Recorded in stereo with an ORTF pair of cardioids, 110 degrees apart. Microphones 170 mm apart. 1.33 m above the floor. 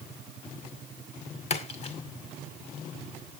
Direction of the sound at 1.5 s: 40° left.